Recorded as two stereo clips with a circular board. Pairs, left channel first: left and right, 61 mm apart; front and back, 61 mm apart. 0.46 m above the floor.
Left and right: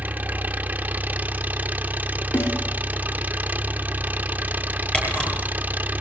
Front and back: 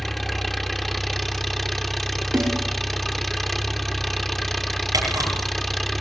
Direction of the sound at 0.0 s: 85° right.